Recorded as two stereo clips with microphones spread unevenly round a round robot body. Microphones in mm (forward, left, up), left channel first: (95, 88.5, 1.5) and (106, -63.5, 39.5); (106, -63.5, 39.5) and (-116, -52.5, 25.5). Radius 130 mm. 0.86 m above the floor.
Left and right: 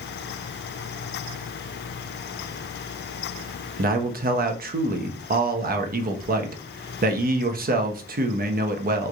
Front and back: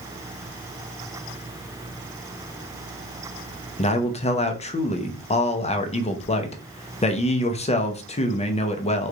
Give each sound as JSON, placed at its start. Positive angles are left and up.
{"t": 3.8, "sound": "a man speaking", "azimuth_deg": -65, "distance_m": 0.7}